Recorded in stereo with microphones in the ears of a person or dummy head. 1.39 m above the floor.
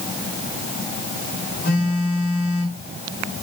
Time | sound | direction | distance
1.6 | a phone buzzing | 50° left (ahead or behind) | 7.5 m